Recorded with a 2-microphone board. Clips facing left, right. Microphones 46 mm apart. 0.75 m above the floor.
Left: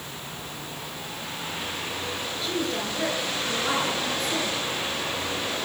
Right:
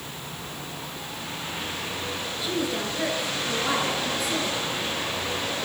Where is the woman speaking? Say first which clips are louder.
Right 1 dB; 5° right (ahead or behind), 10 m.